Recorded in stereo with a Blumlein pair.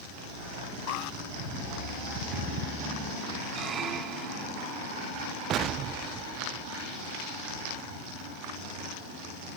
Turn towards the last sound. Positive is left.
turn(degrees=-35)